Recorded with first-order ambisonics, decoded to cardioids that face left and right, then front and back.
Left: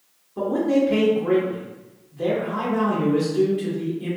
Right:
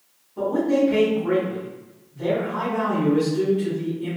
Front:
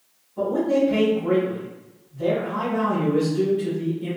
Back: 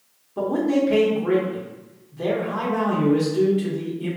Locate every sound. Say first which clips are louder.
0.4 s a man speaking: even, front 1 dB; 150° left, 1.0 m